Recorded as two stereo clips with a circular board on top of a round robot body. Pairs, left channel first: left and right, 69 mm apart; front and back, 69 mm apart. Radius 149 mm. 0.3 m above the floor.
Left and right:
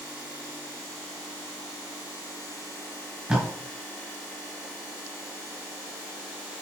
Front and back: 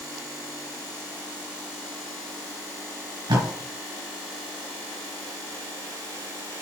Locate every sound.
3.3 s tape being pulled: 170° right, 4.5 m